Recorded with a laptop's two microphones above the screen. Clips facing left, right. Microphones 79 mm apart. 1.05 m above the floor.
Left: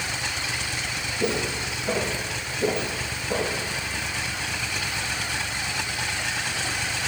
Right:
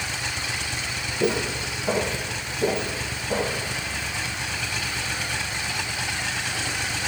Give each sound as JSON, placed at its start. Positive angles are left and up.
{"t": 1.2, "sound": "footsteps", "side_deg": -20, "distance_m": 2.0}